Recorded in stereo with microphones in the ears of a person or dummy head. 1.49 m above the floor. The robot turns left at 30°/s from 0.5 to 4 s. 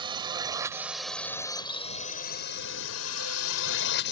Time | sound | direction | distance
0.0 | a drone | 20° right (ahead or behind) | ?